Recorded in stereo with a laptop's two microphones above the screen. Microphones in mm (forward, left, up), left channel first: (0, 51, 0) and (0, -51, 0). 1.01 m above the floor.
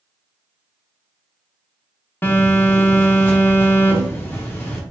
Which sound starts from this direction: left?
A phone buzzing, at 2.2 s.